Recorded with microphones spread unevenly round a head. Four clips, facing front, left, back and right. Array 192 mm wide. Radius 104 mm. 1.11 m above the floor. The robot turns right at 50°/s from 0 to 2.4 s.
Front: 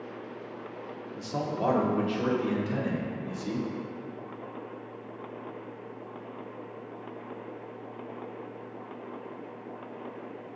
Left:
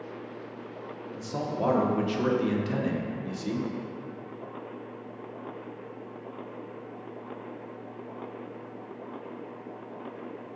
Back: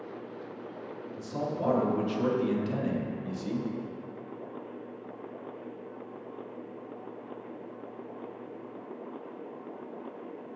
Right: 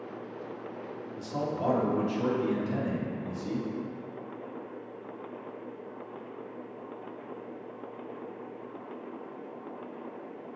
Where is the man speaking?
15° left, 0.8 m; by 3.6 s 75° left, 0.8 m.